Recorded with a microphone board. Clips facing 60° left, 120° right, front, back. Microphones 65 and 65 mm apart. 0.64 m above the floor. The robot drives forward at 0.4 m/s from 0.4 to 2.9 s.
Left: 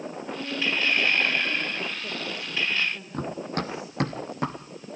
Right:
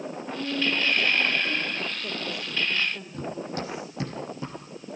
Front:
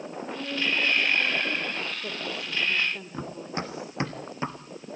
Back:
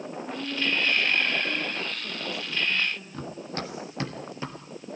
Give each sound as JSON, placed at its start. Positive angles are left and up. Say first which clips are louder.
{"t": 0.2, "sound": "a woman speaking", "louder": "right 2 dB, even", "azimuth_deg": -35, "distance_m": 3.0}
{"t": 3.1, "sound": "running footsteps", "louder": "left 2 dB, front 1 dB", "azimuth_deg": 70, "distance_m": 1.0}